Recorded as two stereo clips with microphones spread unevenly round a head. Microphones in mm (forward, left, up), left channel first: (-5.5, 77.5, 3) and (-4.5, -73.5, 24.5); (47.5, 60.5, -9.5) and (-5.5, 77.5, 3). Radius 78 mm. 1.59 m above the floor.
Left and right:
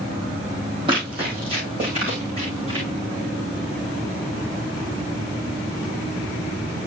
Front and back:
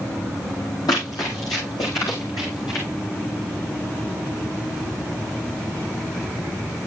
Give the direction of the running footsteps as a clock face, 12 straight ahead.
1 o'clock.